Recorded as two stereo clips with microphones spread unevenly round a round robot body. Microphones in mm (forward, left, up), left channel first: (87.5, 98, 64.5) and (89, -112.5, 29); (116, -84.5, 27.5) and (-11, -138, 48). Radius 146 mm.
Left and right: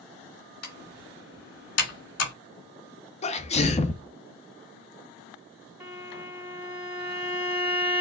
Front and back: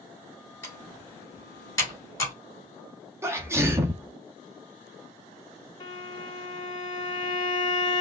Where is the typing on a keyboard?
90° left, 2.5 m.